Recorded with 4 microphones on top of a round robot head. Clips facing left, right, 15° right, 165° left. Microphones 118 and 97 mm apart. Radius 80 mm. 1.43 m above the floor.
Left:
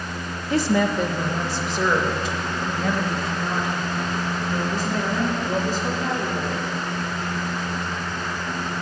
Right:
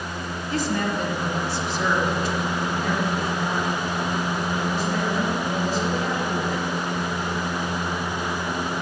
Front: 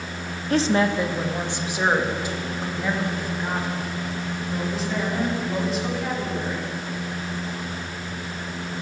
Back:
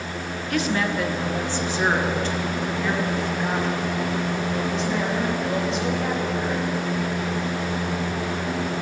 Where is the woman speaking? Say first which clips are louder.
Left 5 dB, front 4 dB; 45° left, 0.8 m; by 6.7 s 75° left, 4.5 m.